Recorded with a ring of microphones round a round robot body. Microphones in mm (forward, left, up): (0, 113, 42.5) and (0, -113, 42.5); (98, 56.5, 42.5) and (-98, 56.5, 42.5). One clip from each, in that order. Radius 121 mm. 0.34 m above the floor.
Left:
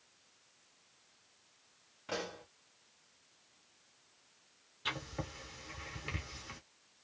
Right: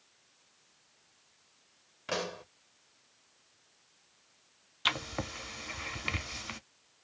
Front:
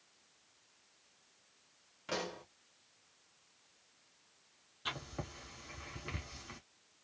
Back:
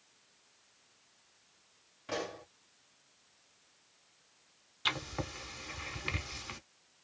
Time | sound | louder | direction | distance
2.1 | a pop | right 5 dB, back 1 dB | 60° right | 1.0 m
4.8 | writing | right 8 dB, back 8 dB | 130° right | 0.7 m